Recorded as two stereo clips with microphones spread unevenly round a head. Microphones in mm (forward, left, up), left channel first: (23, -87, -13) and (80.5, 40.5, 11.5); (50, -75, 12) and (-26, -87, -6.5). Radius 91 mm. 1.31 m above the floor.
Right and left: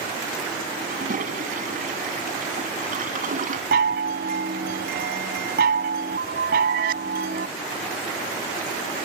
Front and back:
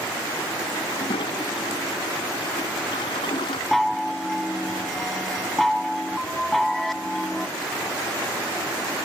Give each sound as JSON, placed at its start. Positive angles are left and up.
{"t": 0.9, "sound": "a toilet flushing", "azimuth_deg": 40}
{"t": 3.7, "sound": "a chime", "azimuth_deg": 95}